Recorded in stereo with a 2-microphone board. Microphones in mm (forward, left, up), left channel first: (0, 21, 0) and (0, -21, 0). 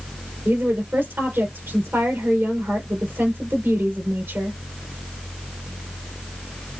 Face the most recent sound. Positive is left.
turn(degrees=-65)  # may be behind; listen again after turning